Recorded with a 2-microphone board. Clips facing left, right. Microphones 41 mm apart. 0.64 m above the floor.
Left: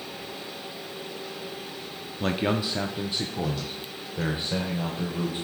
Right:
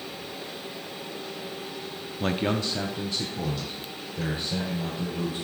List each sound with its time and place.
2.2 s a man speaking: 5° right (ahead or behind), 0.7 m; by 5.5 s 40° left (ahead or behind), 2.5 m